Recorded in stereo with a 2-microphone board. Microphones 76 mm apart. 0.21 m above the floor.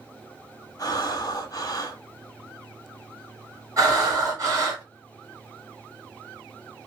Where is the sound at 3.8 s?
45° right (ahead or behind), 2 m.